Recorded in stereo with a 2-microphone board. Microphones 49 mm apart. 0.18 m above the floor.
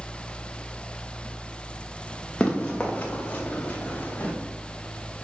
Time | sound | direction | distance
2.4 | running footsteps | 20° left (ahead or behind) | 3 m